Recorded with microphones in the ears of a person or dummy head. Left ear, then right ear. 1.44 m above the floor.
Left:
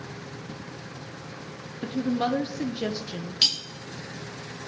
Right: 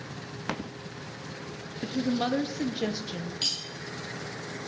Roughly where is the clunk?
No clunk in this recording.